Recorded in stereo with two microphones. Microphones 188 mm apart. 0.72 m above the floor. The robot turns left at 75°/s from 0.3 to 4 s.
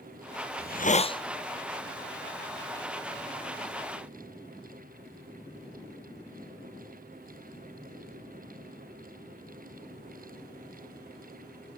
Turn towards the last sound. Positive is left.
turn(degrees=175)